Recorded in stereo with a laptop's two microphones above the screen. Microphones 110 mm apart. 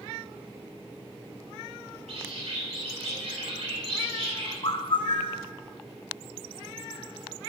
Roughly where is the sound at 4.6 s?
Left.